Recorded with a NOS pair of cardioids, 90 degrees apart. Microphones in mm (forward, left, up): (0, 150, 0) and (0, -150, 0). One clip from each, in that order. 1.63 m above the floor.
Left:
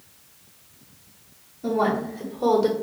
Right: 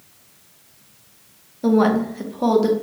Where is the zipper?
No zipper in this recording.